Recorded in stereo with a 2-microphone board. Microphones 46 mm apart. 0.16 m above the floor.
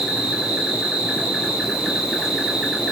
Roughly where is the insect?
Centre.